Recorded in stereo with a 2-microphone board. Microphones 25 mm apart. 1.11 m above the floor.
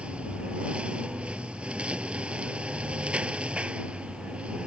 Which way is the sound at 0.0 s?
50° right (ahead or behind).